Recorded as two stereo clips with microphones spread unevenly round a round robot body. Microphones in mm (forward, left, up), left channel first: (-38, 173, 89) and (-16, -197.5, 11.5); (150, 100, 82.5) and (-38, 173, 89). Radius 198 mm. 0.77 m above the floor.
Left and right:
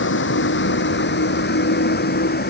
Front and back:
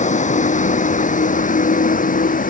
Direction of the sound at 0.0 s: 30° left.